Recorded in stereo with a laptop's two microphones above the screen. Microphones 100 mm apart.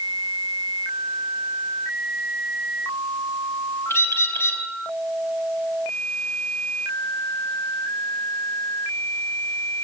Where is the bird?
25° left (ahead or behind), 3.5 m.